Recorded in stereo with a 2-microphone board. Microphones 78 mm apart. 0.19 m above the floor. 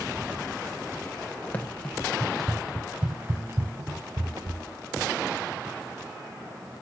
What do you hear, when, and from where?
1.5 s running footsteps: 20° left (ahead or behind), 1.3 m; by 4.6 s 55° right (ahead or behind), 1.6 m